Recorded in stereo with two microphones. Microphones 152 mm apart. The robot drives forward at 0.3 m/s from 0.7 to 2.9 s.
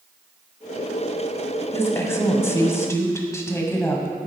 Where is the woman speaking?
15° left (ahead or behind), 1.3 m; by 4.2 s 20° left (ahead or behind), 1.2 m.